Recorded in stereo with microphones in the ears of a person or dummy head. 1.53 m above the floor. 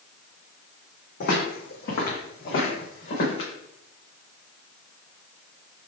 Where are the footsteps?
60° left (ahead or behind), 3 m; by 3.5 s 45° left (ahead or behind), 4.5 m.